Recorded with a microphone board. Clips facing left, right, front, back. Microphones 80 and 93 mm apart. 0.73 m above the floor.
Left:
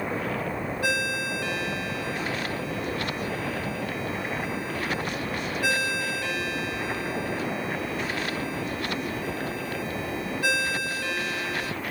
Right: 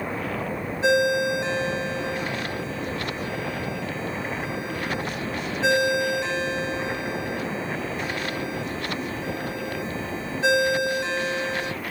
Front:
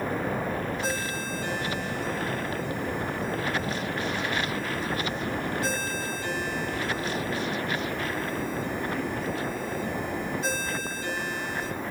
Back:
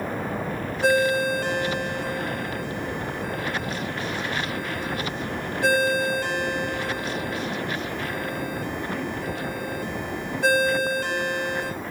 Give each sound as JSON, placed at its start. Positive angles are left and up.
{"t": 0.8, "sound": "a ringtone", "azimuth_deg": -155, "distance_m": 2.0}